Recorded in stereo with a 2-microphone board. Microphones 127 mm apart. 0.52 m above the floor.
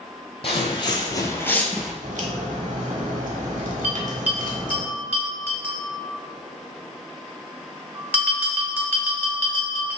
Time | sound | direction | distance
0.4 | footsteps | 45° left (ahead or behind) | 1.0 m
2.0 | a crack | 75° right (ahead or behind) | 0.9 m
3.8 | a bell | 15° right (ahead or behind) | 1.2 m